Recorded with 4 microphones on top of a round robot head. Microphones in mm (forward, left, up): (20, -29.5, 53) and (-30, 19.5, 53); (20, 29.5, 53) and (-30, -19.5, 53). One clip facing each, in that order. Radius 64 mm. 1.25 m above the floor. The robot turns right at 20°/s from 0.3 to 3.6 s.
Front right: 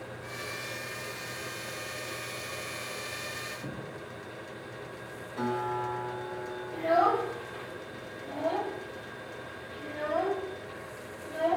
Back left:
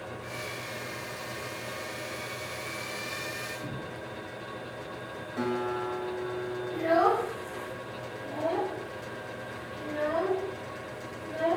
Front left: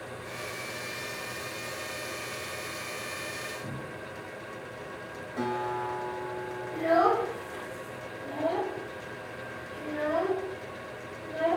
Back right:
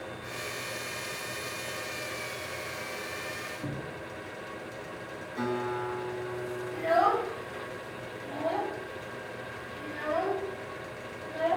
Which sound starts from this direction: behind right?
A cupboard door, at 3.6 s.